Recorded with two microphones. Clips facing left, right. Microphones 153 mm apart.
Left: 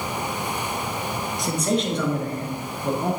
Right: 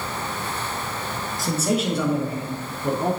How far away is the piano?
I don't hear a piano.